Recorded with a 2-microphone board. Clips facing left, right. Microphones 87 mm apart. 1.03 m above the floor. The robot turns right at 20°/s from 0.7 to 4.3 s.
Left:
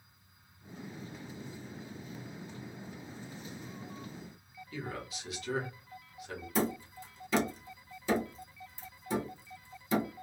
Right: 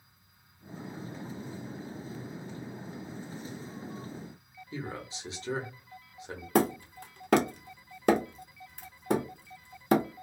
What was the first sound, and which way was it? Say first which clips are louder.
A man speaking: right 2 dB; 30° right (ahead or behind).